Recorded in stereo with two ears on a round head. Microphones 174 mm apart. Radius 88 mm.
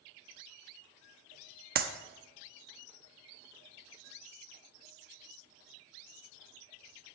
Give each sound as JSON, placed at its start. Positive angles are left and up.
{"t": 1.8, "sound": "a clap", "side_deg": -50, "distance_m": 0.9}